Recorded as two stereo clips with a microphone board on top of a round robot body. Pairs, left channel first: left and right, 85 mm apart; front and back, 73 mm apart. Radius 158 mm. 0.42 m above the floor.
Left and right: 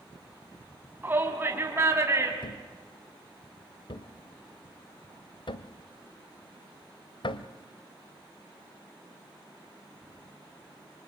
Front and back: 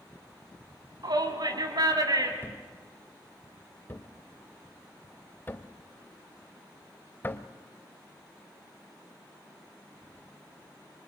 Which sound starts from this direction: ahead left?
A thud, at 2.4 s.